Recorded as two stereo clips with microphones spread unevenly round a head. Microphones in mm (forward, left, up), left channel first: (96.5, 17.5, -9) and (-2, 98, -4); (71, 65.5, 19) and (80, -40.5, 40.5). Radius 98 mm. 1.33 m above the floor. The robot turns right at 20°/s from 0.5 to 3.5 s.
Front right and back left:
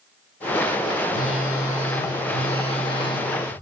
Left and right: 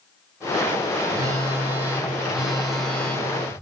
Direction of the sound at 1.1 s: 25° right.